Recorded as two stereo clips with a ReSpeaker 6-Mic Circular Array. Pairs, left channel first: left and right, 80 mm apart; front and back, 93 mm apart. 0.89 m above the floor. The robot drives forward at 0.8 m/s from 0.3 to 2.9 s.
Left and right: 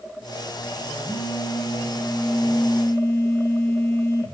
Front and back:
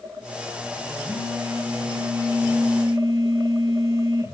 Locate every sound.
1.1 s a phone buzzing: 130° left, 4.5 m; by 4.3 s 140° left, 5.5 m